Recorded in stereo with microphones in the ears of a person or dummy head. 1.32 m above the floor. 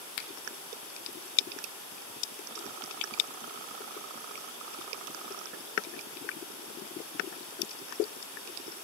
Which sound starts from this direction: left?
A finger snap, at 0.2 s.